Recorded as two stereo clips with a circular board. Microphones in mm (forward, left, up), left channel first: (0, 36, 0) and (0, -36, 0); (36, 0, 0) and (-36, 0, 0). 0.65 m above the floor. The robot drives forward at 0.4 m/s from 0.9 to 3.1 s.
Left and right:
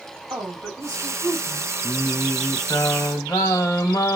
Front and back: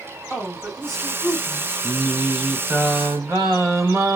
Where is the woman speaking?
90° right, 1.7 m; by 1.7 s 100° right, 1.8 m.